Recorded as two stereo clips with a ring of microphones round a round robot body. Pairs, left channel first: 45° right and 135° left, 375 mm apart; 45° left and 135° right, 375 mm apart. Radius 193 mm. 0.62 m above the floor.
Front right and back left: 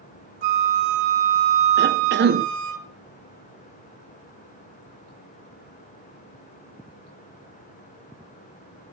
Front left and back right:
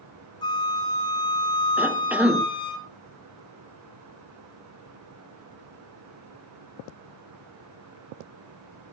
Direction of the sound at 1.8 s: 145° left.